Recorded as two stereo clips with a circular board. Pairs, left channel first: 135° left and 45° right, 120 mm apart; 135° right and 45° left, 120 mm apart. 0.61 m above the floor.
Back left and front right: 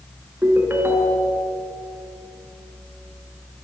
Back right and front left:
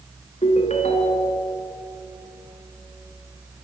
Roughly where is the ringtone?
Behind right.